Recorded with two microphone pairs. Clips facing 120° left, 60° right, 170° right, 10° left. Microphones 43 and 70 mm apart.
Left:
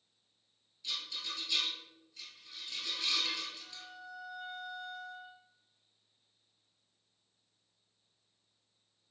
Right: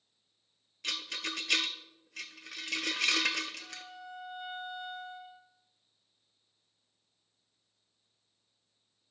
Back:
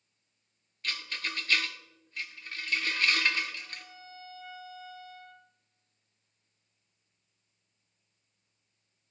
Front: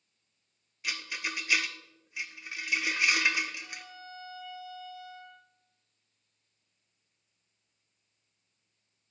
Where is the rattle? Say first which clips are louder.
Right 4 dB, front 1 dB; 70° right, 0.6 m.